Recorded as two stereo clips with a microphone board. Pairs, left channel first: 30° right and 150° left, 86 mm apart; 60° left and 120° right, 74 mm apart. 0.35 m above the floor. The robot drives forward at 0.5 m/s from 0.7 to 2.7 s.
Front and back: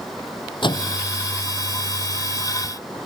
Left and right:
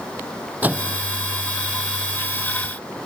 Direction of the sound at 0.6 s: 55° right.